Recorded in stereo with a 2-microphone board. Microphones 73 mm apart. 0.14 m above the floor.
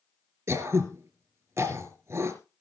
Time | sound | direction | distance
0.5 | throat clearing | 35° right (ahead or behind) | 3 m